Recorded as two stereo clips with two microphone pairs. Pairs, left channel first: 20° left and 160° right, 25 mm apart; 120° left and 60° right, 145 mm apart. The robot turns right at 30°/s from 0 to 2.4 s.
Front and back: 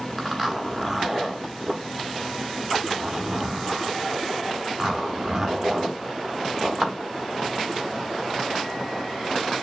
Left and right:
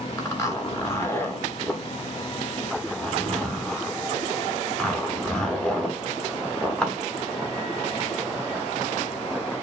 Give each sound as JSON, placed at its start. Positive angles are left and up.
{"t": 0.2, "sound": "a zipper", "azimuth_deg": 130, "distance_m": 1.1}